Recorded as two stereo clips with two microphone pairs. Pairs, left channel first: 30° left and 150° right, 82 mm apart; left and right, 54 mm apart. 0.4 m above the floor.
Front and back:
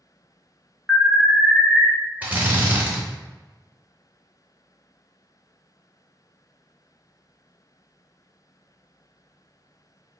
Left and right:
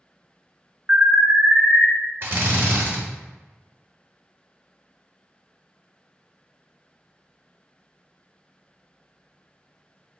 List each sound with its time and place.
0.9 s an alarm: 65° right, 1.2 m
2.2 s a drill: 95° right, 0.7 m